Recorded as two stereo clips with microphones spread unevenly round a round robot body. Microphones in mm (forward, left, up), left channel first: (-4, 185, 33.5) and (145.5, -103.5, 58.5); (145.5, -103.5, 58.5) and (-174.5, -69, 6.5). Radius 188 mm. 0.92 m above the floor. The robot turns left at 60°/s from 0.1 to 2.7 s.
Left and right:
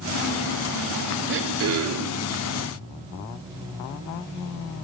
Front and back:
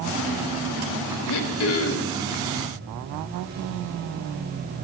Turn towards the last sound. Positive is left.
turn(degrees=-100)